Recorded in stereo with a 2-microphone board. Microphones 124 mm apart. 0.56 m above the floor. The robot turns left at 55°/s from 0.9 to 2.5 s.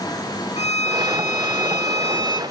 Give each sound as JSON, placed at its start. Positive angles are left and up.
{"t": 0.6, "sound": "a violin", "azimuth_deg": 115, "distance_m": 0.8}